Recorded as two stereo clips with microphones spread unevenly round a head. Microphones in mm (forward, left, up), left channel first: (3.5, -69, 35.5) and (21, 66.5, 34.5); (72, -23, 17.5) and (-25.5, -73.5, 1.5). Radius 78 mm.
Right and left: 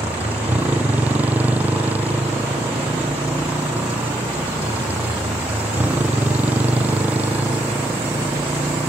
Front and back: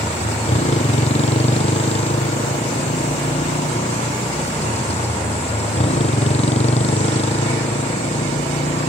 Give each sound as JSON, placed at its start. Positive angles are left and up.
{"t": 0.0, "sound": "a motorcycle", "azimuth_deg": 5}